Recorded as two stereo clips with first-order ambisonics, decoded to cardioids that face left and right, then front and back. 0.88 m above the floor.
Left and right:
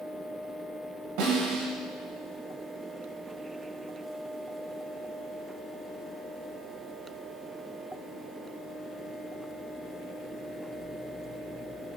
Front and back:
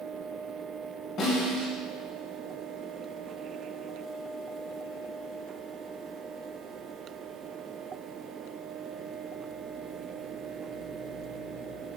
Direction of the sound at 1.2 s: 60° right.